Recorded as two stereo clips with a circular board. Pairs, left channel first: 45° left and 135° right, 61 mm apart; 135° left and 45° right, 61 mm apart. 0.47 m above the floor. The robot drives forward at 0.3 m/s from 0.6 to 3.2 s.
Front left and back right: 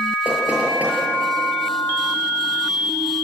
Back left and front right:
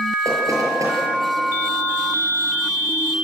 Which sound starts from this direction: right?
Knocking, at 0.2 s.